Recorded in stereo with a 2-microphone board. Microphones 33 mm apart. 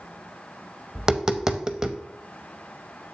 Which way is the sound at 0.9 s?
20° right (ahead or behind).